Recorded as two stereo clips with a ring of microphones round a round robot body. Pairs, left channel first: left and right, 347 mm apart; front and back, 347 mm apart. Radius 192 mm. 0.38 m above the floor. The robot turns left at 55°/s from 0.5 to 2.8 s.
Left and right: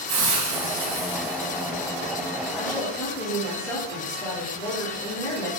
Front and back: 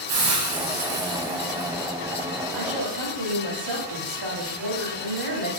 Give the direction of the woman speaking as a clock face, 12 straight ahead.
6 o'clock.